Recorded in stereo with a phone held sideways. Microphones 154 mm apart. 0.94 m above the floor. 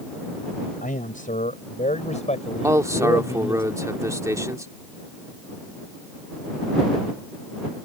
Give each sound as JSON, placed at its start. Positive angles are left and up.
{"t": 0.8, "sound": "a man speaking", "side_deg": 55}
{"t": 2.6, "sound": "a man speaking", "side_deg": -20}